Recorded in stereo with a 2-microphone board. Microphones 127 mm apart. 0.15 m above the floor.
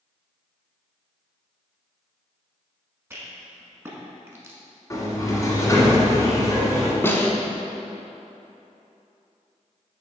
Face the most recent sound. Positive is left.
turn(degrees=20)  # may be behind; listen again after turning